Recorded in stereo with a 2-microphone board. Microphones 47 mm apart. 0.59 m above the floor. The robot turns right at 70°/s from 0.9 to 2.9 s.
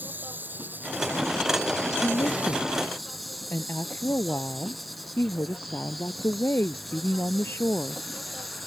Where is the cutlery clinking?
I don't hear cutlery clinking.